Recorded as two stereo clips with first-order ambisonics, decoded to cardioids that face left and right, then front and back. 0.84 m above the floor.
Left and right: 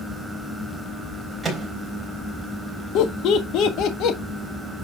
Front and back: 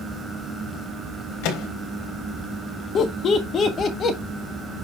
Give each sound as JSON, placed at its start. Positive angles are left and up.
{"t": 1.4, "sound": "a microwave", "azimuth_deg": -5, "distance_m": 4.0}
{"t": 3.0, "sound": "laughter", "azimuth_deg": 60, "distance_m": 1.5}